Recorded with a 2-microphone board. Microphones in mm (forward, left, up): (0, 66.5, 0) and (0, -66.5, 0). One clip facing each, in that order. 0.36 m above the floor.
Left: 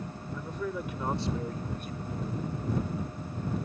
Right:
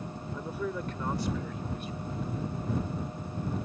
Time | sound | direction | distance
0.3 | a man speaking | 20° right (ahead or behind) | ?